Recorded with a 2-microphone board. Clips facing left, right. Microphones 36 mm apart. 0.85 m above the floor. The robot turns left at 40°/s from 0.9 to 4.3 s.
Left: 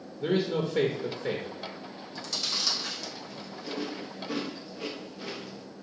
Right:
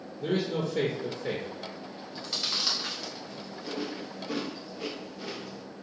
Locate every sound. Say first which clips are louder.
0.2 s a man speaking: left 2 dB; 25° left (ahead or behind), 0.8 m; by 1.5 s 5° left (ahead or behind), 0.8 m
2.1 s chewing: right 1 dB; 25° right (ahead or behind), 0.9 m; by 5.6 s 5° left (ahead or behind), 0.9 m